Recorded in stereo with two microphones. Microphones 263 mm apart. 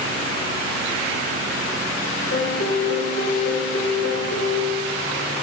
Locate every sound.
2.3 s a piano: 55° left (ahead or behind), 1.0 m